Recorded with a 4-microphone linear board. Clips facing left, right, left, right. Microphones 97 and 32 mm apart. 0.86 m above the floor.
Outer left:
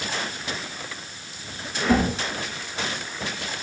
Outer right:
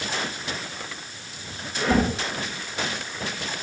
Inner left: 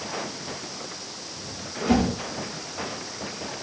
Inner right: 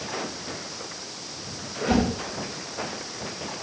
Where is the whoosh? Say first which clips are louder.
Outer left 1 dB, inner left 1 dB; 5° left (ahead or behind), 4.5 m.